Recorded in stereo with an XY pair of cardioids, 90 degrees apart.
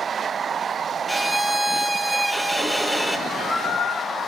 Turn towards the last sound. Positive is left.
turn(degrees=70)